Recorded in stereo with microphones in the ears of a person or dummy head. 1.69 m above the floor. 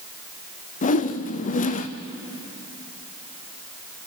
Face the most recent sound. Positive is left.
turn(degrees=40)  # may be behind; listen again after turning